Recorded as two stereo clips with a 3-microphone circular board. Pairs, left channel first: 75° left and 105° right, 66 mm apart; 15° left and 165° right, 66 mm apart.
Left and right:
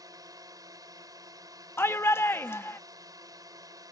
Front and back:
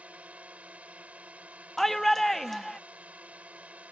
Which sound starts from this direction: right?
A drone, at 0.0 s.